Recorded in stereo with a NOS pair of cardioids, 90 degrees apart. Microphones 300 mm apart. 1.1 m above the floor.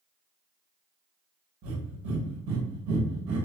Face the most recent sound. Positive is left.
turn(degrees=-70)